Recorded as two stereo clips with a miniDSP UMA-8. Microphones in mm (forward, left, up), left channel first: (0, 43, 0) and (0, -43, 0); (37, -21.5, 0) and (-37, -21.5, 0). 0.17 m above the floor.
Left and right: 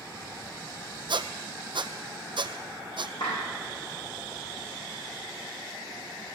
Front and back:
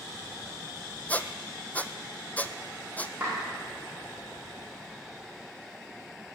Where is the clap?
115° left, 7.5 m.